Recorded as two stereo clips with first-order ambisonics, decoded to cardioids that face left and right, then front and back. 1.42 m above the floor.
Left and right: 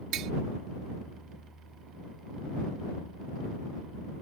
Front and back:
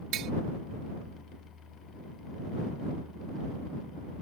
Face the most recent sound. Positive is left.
turn(degrees=-135)